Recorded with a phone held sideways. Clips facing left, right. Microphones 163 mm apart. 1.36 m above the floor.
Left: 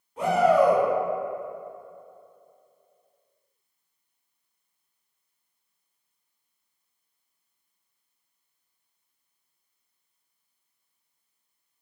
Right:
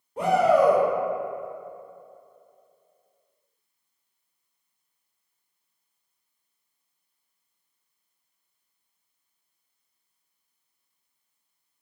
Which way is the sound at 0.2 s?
35° right (ahead or behind).